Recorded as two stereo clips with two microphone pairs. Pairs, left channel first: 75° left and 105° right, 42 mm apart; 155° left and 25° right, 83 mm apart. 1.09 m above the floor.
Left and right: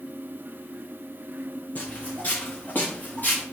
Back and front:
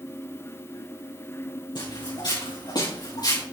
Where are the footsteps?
130° left, 4 m; by 3.4 s 125° left, 5.5 m.